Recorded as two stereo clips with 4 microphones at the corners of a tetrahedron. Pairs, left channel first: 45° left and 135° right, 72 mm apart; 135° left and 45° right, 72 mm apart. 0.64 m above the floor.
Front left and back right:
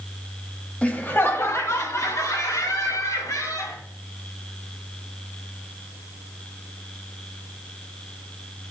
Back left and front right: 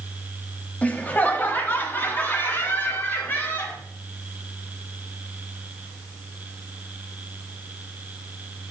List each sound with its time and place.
0.8 s laughter: 95° left, 0.9 m; by 3.8 s 75° left, 3 m